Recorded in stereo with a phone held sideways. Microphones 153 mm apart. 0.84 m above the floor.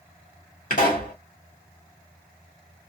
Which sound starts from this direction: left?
A pop, at 0.7 s.